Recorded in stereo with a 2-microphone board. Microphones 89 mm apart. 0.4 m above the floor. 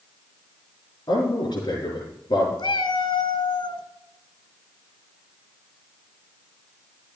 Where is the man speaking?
60° left (ahead or behind), 5 m.